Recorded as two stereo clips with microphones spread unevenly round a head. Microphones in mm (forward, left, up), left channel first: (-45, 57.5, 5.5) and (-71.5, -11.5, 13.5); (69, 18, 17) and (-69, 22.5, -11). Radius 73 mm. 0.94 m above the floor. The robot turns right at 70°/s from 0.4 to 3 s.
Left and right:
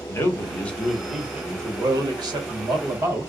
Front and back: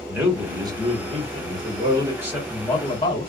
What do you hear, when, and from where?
0.1 s a man speaking: 115° left, 1.2 m; by 3.3 s 65° right, 1.2 m